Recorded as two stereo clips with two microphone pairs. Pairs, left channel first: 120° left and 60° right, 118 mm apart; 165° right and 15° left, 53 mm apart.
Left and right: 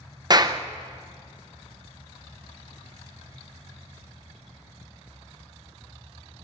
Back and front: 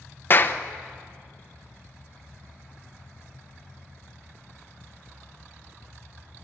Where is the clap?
115° right, 0.8 m.